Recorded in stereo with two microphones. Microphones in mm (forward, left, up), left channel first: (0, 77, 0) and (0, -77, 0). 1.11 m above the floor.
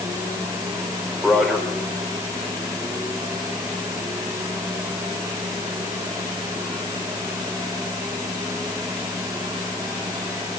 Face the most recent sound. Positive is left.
turn(degrees=0)  # may be behind; listen again after turning